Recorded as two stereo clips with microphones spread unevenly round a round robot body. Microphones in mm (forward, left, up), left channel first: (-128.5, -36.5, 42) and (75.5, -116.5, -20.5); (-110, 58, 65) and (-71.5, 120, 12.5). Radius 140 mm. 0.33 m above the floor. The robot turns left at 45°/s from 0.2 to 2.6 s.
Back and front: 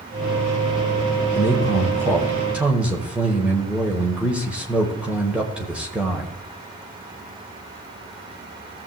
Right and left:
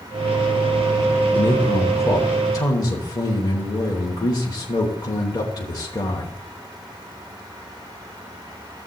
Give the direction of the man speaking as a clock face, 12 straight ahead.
12 o'clock.